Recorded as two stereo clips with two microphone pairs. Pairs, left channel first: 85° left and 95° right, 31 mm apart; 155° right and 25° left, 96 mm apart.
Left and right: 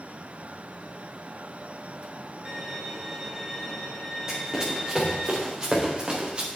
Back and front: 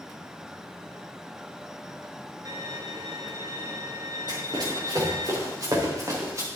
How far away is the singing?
No singing in this recording.